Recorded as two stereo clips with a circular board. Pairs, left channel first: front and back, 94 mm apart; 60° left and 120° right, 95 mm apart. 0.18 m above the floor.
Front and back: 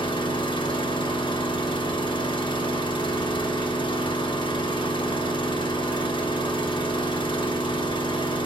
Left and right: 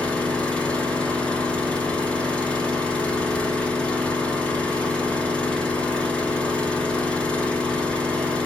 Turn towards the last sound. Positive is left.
turn(degrees=-20)